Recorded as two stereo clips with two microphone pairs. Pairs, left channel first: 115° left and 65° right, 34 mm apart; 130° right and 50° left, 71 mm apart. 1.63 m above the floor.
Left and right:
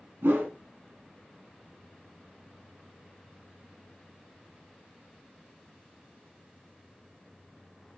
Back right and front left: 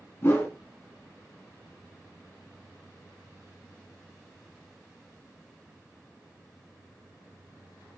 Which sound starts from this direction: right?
A whoosh, at 0.2 s.